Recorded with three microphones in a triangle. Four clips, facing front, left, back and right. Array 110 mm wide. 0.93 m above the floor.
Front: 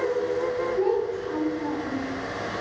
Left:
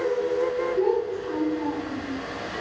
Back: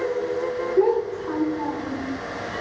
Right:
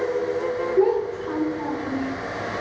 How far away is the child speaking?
About 2 m.